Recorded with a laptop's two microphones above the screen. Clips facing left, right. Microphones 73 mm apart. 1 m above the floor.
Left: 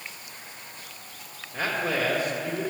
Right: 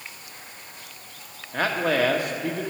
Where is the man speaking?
60° right (ahead or behind), 1.5 m.